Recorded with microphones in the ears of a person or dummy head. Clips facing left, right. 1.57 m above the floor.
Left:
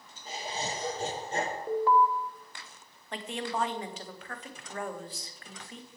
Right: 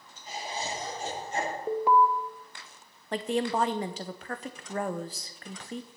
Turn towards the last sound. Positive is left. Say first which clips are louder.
# right 7 dB
turn(degrees=-40)  # may be behind; listen again after turning